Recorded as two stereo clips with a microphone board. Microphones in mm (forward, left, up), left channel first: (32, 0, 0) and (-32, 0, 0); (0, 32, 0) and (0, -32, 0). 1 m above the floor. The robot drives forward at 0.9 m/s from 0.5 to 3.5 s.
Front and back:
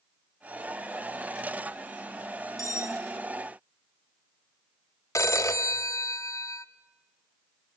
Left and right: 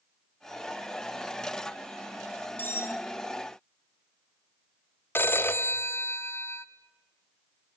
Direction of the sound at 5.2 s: 35° left.